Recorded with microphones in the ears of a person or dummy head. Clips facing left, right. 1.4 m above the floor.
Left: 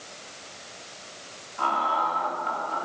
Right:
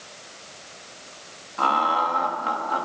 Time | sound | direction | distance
1.6 | laughter | 55° right (ahead or behind) | 3 m